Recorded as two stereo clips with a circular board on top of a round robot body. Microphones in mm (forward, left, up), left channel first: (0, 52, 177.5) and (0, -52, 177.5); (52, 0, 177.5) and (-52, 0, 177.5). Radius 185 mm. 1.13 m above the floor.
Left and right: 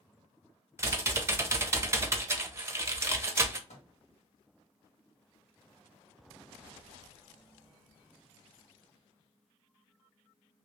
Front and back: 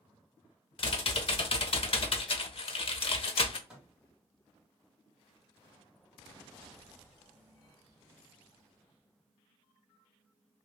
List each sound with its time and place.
0.8 s typing on a keyboard: 25° right, 0.7 m
3.7 s a microwave: 100° left, 1.5 m